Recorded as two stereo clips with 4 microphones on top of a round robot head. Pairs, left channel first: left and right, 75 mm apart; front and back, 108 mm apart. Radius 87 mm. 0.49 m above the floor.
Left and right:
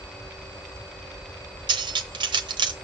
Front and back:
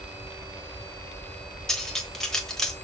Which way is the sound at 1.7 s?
85° right.